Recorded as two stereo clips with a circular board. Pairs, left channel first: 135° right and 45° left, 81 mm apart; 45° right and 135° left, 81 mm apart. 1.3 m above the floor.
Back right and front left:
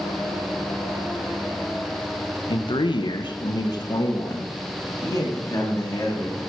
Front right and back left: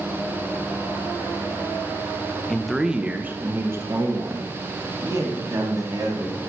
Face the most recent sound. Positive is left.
turn(degrees=175)